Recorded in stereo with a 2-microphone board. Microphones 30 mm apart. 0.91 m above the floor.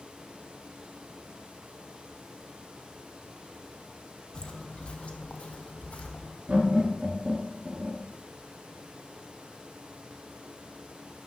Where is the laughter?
45° right (ahead or behind), 2 m.